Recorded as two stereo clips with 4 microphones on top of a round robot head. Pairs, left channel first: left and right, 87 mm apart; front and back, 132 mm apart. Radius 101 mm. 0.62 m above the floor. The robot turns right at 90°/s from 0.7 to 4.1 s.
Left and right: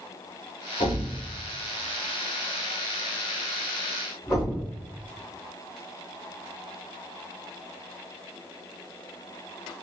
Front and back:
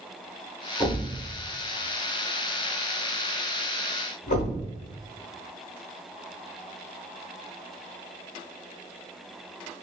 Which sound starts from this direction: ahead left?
A thud, at 0.8 s.